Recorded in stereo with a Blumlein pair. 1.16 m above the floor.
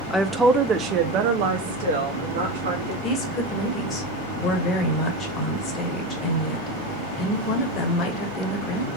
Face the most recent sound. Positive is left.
turn(degrees=25)